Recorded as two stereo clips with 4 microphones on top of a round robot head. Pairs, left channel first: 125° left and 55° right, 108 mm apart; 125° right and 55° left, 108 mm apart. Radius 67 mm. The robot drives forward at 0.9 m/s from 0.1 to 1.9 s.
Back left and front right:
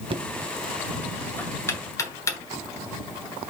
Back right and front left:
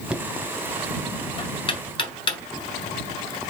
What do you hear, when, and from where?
0.1 s knocking: 25° right, 0.7 m; by 2.6 s 170° right, 1.2 m